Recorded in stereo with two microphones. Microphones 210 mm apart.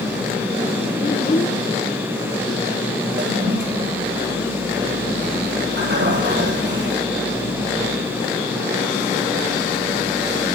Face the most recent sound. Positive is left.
turn(degrees=-60)  # may be behind; listen again after turning